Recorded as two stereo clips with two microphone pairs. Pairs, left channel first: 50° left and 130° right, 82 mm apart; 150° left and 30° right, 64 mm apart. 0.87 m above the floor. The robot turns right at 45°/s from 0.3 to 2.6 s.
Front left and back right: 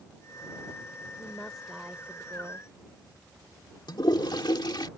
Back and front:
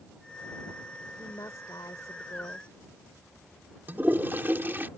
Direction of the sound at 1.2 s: 115° left.